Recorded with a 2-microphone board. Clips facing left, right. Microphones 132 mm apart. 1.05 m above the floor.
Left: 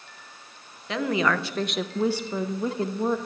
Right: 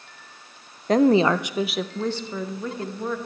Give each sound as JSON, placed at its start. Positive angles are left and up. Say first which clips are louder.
{"t": 0.9, "sound": "a woman speaking", "louder": "right 8 dB", "side_deg": -45, "distance_m": 0.6}